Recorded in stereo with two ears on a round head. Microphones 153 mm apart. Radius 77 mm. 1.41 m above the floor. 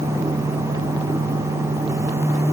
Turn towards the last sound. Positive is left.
No sound to turn to.